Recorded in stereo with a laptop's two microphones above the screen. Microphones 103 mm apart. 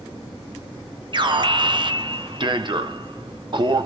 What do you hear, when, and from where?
1.1 s an alarm: 50° right (ahead or behind), 1.0 m